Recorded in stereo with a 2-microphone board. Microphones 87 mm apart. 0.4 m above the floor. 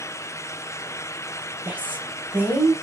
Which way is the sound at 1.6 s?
20° right (ahead or behind).